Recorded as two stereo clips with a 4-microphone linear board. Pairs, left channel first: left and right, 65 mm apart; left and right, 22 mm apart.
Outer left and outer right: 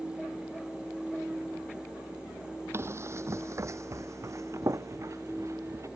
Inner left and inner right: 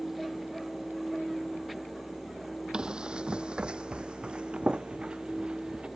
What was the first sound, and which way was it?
Running footsteps, 40° right (ahead or behind).